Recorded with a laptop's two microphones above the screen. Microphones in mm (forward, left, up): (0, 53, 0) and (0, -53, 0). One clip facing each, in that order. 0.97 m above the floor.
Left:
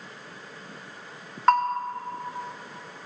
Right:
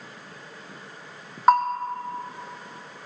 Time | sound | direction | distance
1.5 | a bell | 15° right (ahead or behind) | 1.7 m